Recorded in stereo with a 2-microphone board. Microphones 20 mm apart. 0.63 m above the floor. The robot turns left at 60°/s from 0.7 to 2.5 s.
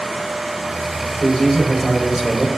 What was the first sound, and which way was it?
A man speaking, 45° left.